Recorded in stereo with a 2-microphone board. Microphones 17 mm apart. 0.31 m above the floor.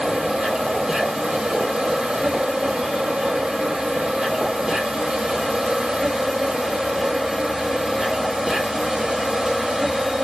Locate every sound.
0.0 s an insect: 75° right (ahead or behind), 0.9 m